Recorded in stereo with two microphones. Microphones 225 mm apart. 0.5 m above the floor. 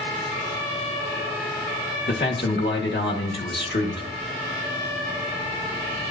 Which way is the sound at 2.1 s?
50° left (ahead or behind).